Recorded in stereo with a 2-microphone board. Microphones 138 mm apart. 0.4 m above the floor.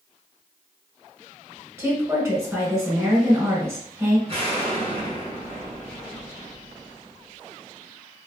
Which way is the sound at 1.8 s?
20° right (ahead or behind).